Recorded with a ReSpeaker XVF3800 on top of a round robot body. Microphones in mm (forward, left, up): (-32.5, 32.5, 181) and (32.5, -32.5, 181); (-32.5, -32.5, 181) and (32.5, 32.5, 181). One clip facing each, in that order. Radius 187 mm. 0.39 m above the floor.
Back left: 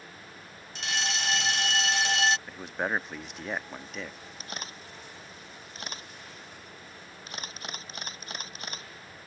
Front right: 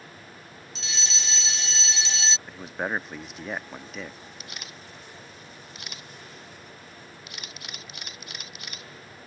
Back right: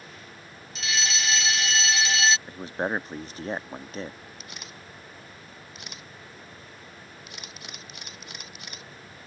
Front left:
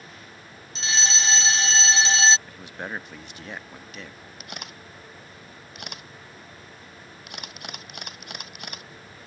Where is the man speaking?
135° right.